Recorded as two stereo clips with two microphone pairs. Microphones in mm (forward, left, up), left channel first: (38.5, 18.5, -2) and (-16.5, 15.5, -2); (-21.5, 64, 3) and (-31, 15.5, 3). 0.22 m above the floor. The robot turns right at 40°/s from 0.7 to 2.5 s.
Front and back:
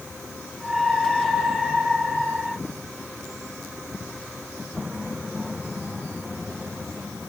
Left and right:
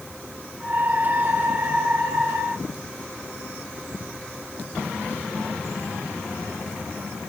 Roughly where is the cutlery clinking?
I don't hear cutlery clinking.